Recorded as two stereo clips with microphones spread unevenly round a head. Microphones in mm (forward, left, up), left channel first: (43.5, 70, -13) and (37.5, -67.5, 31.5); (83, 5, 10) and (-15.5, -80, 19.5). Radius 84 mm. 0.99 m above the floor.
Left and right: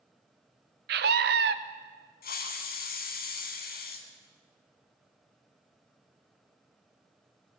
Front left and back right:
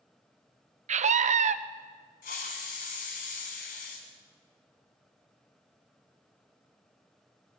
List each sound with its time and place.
0.9 s a scream: 120° right, 0.8 m
2.2 s a hiss: 70° left, 1.6 m